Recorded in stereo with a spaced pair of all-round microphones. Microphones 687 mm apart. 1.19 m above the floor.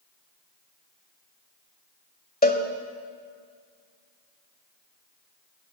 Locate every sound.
2.4 s a cowbell: 15° left (ahead or behind), 1.5 m